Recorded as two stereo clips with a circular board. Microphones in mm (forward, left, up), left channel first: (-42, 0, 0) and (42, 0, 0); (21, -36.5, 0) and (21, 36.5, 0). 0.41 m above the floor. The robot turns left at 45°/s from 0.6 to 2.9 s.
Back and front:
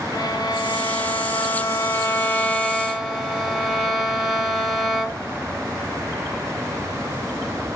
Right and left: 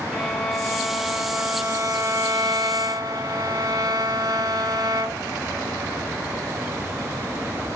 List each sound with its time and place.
0.1 s a violin: 175° right, 1.6 m; by 5.3 s 85° left, 1.6 m